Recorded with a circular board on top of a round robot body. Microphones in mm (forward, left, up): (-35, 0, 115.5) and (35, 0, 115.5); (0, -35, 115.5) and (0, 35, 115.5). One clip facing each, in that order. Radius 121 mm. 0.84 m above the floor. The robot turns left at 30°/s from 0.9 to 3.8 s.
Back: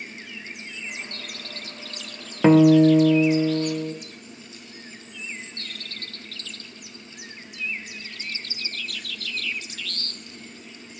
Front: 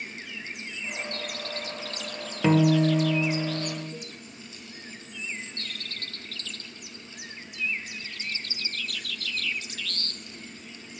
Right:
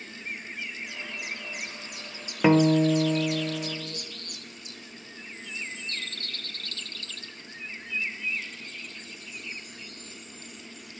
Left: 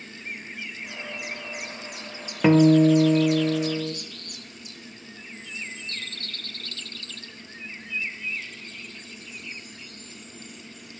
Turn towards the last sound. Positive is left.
turn(degrees=145)